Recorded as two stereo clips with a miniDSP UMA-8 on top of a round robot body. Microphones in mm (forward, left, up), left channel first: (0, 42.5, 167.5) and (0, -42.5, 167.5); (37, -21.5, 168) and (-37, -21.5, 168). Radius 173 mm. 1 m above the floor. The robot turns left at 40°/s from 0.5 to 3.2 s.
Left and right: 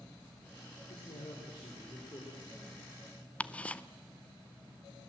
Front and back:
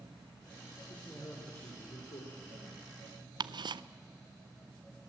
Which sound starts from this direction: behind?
Ticking, at 3.4 s.